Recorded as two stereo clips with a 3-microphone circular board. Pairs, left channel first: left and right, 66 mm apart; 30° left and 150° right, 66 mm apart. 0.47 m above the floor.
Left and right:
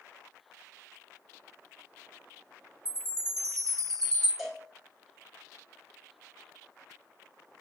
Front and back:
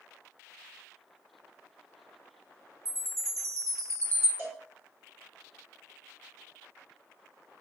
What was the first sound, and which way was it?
A chime, 165° left.